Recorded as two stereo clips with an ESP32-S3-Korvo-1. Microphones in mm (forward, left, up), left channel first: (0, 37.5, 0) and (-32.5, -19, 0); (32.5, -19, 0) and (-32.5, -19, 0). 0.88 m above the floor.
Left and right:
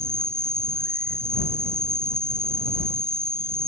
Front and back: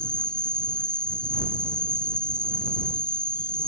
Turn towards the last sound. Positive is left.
turn(degrees=-75)